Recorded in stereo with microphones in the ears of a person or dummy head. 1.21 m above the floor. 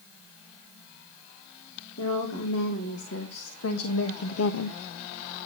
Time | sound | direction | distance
2.0 | a woman speaking | 90° left | 3.5 m